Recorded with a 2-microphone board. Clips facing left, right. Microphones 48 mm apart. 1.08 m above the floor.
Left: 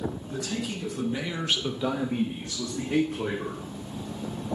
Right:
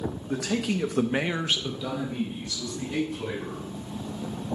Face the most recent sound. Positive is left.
turn(degrees=60)  # may be behind; listen again after turning